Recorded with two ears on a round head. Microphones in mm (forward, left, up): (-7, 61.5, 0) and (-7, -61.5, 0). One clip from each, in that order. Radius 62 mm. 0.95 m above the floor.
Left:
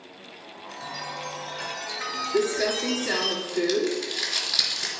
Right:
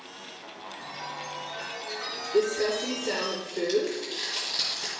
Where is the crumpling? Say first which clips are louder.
Even; 60° left (ahead or behind), 3.5 m.